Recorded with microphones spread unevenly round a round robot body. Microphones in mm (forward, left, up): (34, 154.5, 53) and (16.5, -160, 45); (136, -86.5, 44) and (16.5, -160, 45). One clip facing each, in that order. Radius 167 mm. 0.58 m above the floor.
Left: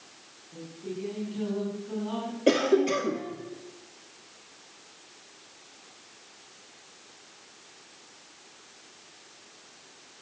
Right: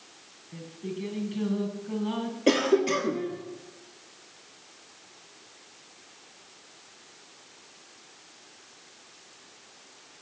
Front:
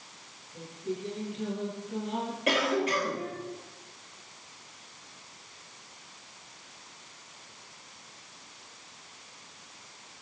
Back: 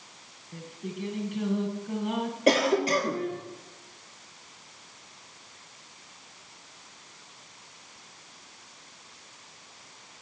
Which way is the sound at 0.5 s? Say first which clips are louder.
Right 1 dB, front 3 dB; 150° right.